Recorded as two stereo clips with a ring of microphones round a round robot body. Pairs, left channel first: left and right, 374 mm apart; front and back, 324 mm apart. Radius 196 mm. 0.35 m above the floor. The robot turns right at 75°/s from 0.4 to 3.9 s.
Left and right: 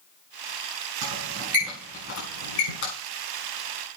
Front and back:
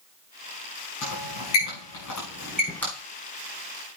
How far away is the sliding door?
No sliding door in this recording.